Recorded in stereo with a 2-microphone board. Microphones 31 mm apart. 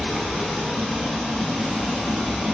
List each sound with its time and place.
0.0 s running water: 10° right (ahead or behind), 1.0 m